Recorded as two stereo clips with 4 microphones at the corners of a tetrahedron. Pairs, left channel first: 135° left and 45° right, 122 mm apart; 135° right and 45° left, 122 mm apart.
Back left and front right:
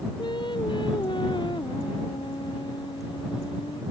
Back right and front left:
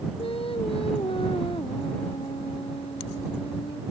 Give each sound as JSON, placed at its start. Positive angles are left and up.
{"t": 0.2, "sound": "singing", "azimuth_deg": -175}